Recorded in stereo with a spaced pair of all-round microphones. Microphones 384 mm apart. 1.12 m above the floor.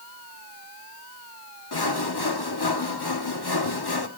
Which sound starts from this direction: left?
Sawing, at 1.7 s.